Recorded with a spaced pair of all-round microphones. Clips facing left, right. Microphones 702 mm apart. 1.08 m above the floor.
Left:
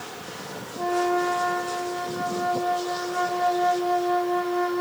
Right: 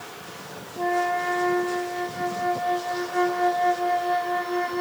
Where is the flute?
50° right (ahead or behind), 1.9 m.